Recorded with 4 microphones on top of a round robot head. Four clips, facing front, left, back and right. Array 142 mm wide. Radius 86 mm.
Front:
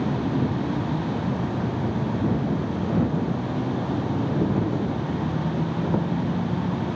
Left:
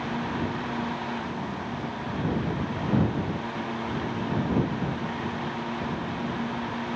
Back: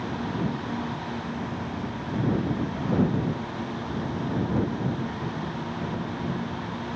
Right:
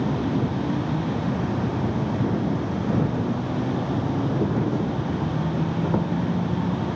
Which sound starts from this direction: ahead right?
An insect, at 0.0 s.